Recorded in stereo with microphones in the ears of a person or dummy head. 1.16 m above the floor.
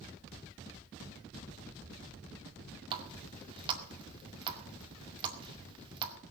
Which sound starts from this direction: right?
A running tap, at 2.9 s.